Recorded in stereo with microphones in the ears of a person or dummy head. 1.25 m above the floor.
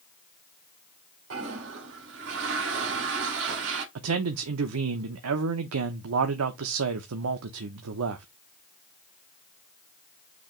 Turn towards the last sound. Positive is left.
turn(degrees=-80)